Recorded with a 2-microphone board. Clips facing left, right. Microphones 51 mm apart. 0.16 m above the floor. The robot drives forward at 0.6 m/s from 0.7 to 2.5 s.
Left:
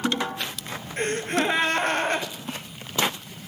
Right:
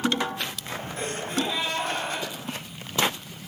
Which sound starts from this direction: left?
A gasp, at 1.0 s.